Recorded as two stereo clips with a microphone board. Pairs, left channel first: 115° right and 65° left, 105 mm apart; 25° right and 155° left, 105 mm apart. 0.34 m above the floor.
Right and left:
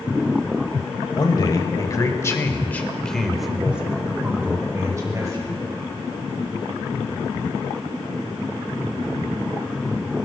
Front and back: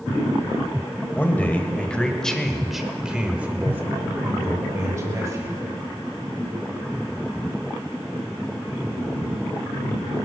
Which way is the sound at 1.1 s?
90° right.